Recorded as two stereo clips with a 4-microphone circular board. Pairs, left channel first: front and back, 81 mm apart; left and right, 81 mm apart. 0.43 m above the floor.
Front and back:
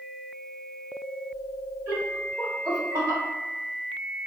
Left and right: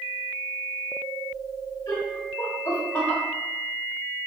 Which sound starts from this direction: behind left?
Laughter, at 1.9 s.